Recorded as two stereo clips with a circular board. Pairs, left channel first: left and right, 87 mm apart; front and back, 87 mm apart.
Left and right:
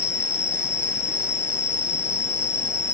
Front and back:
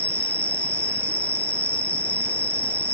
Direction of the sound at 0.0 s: 40° right.